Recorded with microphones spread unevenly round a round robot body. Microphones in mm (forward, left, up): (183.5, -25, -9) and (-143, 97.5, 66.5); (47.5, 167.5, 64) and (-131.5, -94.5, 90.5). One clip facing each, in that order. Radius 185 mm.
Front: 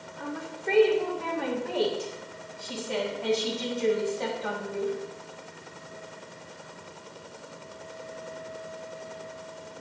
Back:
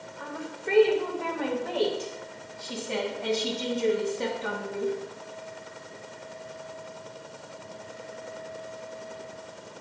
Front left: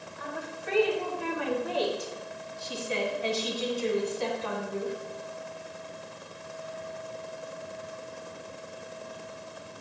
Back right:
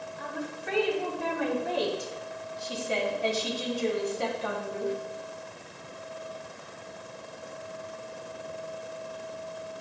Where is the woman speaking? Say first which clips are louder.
Front 2 dB, back right 1 dB; 70° right, 3 m; by 4.9 s 140° right, 2.5 m.